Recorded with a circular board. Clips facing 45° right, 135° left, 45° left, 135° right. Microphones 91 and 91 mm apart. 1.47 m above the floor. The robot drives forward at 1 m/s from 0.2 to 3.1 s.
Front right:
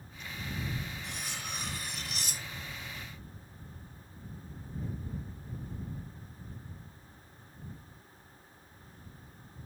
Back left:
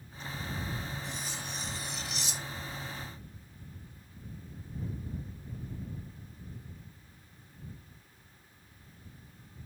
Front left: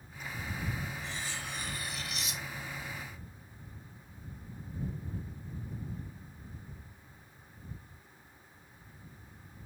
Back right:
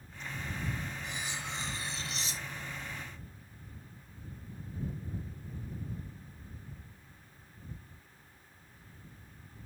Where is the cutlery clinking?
60° right; by 2.8 s 85° right.